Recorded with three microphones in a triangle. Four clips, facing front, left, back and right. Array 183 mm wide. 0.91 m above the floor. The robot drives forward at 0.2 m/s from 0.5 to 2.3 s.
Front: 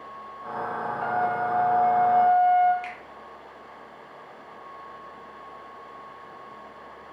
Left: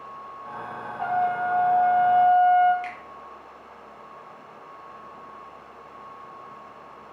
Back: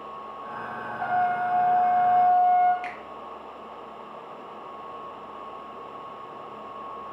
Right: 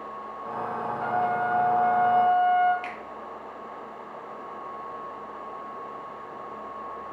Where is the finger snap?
135° right, 0.7 m.